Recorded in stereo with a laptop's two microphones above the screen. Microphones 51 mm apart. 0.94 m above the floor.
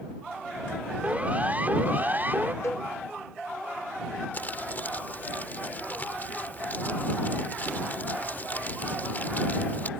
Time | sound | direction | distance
1.0 | a siren | 30° right (ahead or behind) | ?
2.6 | a cowbell | 70° left (ahead or behind) | ?
4.3 | crumpling | 40° left (ahead or behind) | ?